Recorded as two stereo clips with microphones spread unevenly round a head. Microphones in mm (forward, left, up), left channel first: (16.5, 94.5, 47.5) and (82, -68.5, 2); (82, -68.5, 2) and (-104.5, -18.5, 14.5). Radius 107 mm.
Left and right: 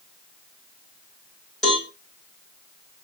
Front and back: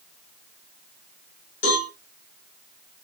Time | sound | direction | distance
1.6 | a cowbell | 25° left | 5 m